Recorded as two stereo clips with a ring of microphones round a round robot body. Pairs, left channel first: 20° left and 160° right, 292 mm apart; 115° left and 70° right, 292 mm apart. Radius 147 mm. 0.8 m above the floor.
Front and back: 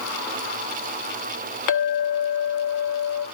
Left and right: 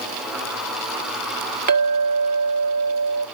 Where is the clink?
5° right, 1.4 m.